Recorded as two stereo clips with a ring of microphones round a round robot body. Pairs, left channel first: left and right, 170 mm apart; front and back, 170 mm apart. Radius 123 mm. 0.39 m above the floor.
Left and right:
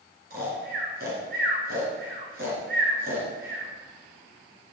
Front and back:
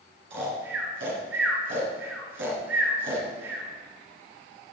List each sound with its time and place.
0.3 s snoring: 145° right, 3 m